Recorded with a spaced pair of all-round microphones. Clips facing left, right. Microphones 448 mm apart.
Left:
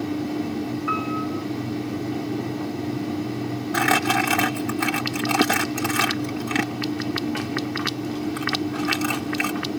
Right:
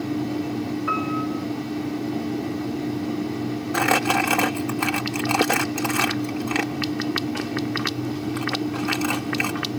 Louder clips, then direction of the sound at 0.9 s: Right 1 dB; 70° right (ahead or behind).